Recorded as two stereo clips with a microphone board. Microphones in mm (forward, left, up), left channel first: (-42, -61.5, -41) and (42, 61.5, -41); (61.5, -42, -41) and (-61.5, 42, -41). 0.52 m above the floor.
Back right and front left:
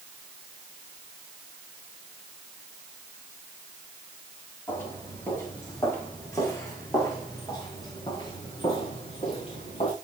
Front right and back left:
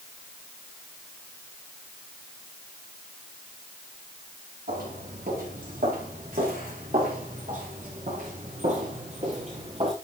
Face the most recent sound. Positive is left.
turn(degrees=-165)